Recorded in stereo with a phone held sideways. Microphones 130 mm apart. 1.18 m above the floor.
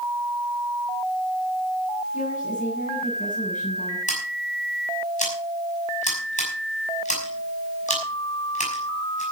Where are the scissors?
70° left (ahead or behind), 5.5 m.